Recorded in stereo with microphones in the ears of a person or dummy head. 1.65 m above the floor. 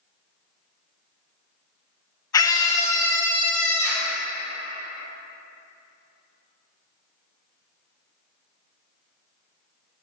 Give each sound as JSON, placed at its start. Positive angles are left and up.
{"t": 2.3, "sound": "a scream", "side_deg": 25, "distance_m": 0.7}